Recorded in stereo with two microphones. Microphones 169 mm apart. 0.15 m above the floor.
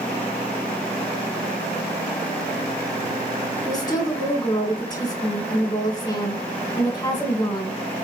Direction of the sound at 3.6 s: 25° left (ahead or behind).